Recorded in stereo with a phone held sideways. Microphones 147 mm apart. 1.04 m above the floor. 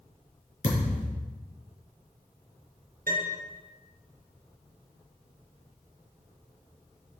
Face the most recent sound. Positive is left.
turn(degrees=-75)  # may be behind; listen again after turning